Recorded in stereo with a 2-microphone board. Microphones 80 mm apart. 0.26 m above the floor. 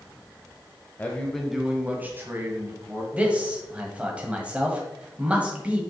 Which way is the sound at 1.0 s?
25° left (ahead or behind).